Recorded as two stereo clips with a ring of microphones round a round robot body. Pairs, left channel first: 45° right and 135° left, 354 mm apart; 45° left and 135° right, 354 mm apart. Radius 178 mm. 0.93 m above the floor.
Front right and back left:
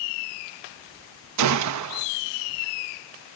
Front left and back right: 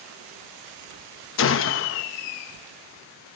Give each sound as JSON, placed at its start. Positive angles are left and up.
{"t": 1.4, "sound": "a gunshot", "azimuth_deg": 95, "distance_m": 1.0}